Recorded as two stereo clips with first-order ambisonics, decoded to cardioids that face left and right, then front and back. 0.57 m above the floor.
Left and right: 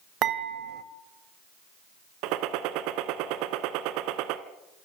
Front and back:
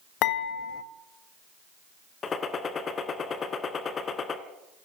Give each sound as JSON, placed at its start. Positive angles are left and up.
{"t": 0.2, "sound": "dishes clattering", "azimuth_deg": -35, "distance_m": 1.9}
{"t": 2.2, "sound": "a gunshot", "azimuth_deg": -65, "distance_m": 1.6}